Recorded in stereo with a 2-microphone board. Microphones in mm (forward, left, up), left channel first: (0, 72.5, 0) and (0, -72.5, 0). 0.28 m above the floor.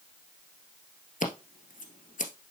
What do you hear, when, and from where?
1.2 s scissors: 65° left (ahead or behind), 1.5 m